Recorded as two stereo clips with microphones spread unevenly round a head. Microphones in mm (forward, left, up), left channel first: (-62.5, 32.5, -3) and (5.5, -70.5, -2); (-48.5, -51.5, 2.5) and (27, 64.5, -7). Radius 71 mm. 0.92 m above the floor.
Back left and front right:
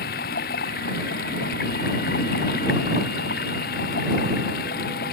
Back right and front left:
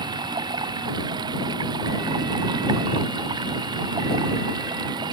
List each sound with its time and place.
0.0 s running water: 115° left